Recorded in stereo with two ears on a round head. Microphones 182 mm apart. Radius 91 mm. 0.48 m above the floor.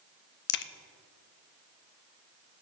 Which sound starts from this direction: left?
A crack, at 0.5 s.